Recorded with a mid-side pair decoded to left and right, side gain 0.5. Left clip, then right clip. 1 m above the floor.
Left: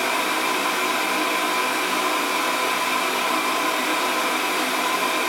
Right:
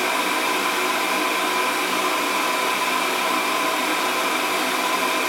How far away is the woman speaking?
No woman speaking in this recording.